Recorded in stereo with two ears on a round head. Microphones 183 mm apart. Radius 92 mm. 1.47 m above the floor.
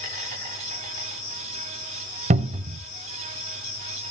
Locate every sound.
0.0 s an insect: 75° left (ahead or behind), 6 m
2.3 s a cupboard door: 35° right (ahead or behind), 0.7 m